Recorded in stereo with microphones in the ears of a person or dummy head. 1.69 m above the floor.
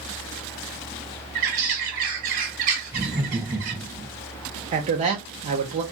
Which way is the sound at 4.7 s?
35° right (ahead or behind).